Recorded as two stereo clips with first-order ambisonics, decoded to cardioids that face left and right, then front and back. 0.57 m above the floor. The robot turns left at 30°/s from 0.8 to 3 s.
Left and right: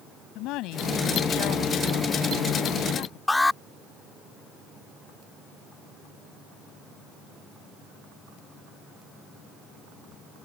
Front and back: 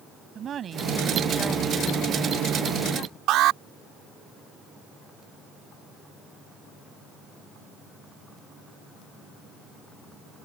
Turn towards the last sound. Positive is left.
turn(degrees=170)